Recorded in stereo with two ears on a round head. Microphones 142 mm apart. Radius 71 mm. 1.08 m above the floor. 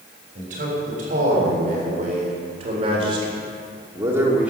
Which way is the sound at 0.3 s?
55° right (ahead or behind).